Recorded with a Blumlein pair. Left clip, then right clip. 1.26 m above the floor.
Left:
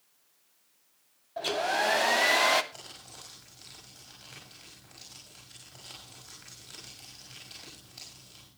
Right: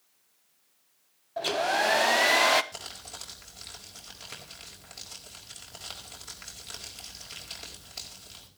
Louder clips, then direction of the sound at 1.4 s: Right 2 dB; 10° right.